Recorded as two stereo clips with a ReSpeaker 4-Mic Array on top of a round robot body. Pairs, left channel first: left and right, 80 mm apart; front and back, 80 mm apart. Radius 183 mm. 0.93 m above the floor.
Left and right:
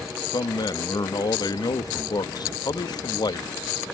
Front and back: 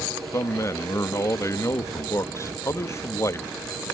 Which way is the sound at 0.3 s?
55° left.